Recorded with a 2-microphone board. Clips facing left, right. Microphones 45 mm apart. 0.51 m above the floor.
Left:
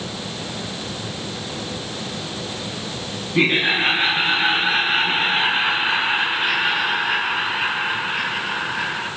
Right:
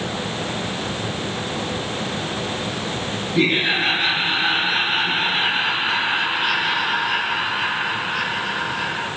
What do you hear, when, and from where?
3.4 s laughter: 25° left (ahead or behind), 3.5 m; by 9.1 s 15° left (ahead or behind), 7.5 m